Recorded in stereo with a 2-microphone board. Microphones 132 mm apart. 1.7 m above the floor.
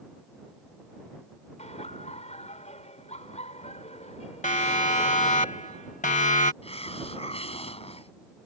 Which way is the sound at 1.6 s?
55° left (ahead or behind).